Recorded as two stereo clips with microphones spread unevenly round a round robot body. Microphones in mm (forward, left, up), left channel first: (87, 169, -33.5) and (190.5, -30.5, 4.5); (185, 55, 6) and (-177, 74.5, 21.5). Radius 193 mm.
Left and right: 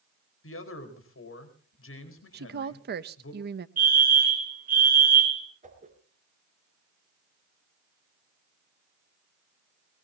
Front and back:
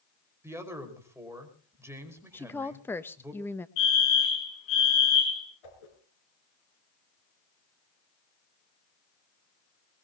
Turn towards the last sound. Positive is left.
turn(degrees=-5)